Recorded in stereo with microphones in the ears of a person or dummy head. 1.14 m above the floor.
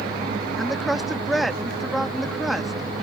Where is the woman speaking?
Centre (ahead or behind).